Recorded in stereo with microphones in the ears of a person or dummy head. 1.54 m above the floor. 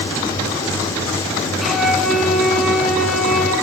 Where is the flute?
Centre (ahead or behind), 5 m.